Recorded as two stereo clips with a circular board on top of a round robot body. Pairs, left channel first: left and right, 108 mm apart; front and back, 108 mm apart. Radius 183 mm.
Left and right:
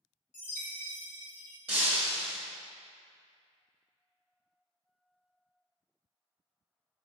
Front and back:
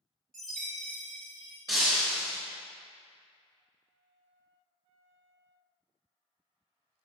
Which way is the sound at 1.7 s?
120° right.